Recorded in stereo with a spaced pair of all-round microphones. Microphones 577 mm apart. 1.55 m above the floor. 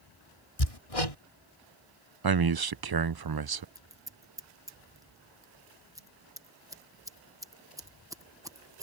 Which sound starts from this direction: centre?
Scissors, at 3.8 s.